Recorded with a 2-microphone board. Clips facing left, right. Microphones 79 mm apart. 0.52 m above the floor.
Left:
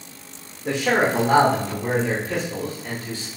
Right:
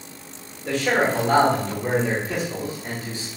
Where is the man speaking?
25° left (ahead or behind), 2 m; by 3.3 s 25° right (ahead or behind), 1.7 m.